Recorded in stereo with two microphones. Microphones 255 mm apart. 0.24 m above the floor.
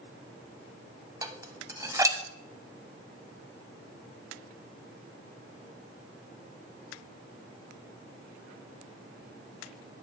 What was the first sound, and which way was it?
Dishes clattering, 15° right (ahead or behind).